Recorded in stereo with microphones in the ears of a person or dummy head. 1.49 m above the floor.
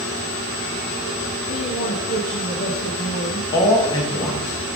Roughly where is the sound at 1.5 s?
Left.